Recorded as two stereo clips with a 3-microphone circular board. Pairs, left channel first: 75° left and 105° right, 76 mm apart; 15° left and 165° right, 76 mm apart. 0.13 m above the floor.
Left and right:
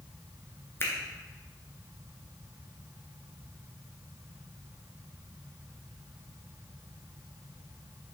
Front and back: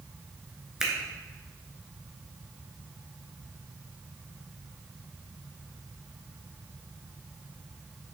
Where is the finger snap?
115° left, 1.3 m.